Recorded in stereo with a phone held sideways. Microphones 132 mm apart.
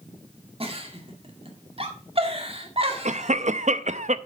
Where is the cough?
65° right (ahead or behind), 0.7 m.